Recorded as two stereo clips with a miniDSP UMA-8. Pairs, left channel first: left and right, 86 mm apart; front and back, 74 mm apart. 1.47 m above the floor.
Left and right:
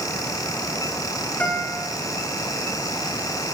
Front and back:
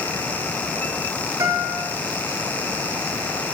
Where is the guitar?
160° left, 2.5 m.